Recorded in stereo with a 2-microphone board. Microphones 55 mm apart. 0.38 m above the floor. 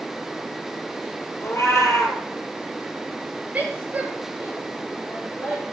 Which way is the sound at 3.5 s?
25° right (ahead or behind).